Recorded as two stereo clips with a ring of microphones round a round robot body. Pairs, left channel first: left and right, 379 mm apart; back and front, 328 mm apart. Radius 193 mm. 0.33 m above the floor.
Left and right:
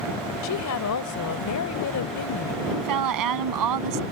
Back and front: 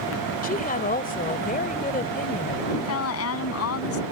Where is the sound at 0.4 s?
120° left.